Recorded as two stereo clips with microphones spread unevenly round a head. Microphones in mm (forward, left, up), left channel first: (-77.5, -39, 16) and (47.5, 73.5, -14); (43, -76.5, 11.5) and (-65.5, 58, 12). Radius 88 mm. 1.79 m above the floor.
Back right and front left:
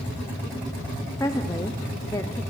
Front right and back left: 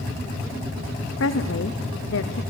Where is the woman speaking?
65° right, 1.0 m.